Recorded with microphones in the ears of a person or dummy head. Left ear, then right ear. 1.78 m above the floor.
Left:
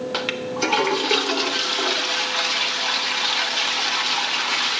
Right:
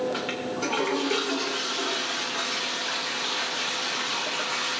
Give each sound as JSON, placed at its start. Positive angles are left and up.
{"t": 0.1, "sound": "a toilet flushing", "side_deg": 35, "distance_m": 0.7}